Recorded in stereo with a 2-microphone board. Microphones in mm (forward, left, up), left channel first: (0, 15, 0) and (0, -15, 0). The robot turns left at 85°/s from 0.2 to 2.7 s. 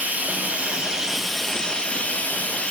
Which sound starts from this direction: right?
Running water, at 0.0 s.